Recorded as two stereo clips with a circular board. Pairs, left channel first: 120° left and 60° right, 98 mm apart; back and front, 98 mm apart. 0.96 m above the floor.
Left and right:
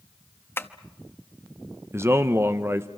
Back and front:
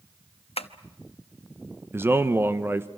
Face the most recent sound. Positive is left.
turn(degrees=-30)